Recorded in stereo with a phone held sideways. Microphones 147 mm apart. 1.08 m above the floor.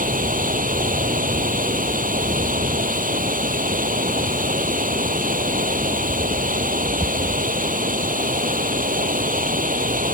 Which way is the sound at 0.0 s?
70° right (ahead or behind).